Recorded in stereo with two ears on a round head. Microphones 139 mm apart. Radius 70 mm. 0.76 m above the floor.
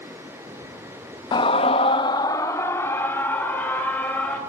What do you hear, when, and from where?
1.3 s a scream: 25° left (ahead or behind), 0.6 m; by 4.4 s 10° left (ahead or behind), 3.5 m